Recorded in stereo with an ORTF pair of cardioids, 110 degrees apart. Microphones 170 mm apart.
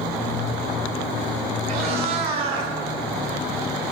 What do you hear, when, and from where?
1.7 s a cat meowing: 65° right, 2 m; by 2.7 s 70° right, 1.7 m